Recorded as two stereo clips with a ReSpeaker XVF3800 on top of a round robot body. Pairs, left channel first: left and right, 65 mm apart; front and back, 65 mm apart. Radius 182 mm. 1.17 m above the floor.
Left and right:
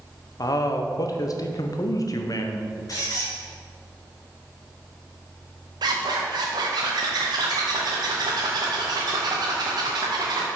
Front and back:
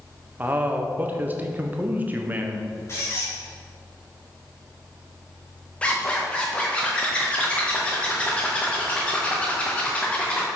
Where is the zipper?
75° right, 0.7 m.